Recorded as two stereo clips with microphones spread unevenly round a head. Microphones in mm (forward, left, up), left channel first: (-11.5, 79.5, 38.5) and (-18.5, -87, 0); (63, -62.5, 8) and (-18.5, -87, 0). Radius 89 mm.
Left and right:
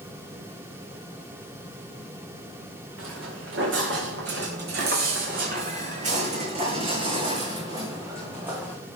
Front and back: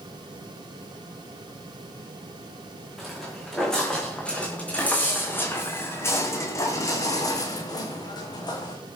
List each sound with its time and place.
3.0 s footsteps: 70° right, 5 m; by 8.8 s 5° right, 4.5 m